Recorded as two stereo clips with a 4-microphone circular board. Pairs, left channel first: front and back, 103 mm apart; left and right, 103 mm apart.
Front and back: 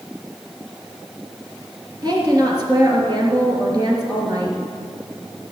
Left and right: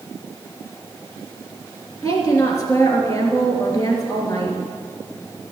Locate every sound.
2.0 s a woman speaking: 140° left, 3 m